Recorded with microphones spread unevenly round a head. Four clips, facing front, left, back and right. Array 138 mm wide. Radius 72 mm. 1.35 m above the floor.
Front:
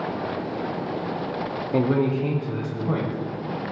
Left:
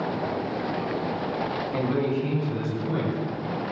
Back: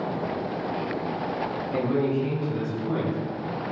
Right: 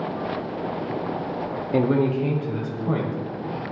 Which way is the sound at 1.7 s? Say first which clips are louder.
Right 6 dB, front 3 dB; 55° right.